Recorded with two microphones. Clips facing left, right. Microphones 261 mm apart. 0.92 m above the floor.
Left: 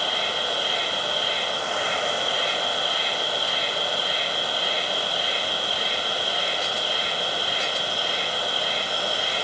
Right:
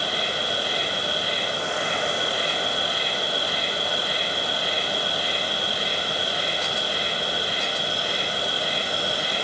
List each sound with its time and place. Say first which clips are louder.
0.0 s an insect: right 1 dB; 30° left (ahead or behind), 0.8 m